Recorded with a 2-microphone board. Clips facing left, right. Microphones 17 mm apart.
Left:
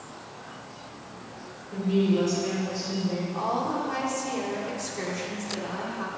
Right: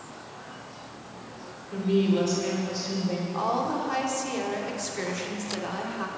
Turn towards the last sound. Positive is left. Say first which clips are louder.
# right 2 dB
turn(degrees=-15)  # may be behind; listen again after turning